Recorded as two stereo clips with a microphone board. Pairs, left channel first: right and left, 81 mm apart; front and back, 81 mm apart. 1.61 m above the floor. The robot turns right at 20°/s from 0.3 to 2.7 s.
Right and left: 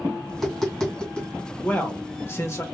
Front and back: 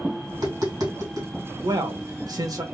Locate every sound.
0.3 s tapping: straight behind, 2.5 m; by 1.3 s 160° right, 2.5 m
1.6 s a man speaking: 160° right, 1.2 m; by 2.6 s 140° right, 1.2 m